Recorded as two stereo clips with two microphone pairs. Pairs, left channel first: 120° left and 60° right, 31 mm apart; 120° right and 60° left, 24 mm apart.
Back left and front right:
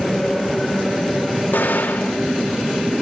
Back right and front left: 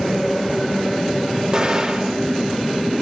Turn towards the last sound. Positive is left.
turn(degrees=115)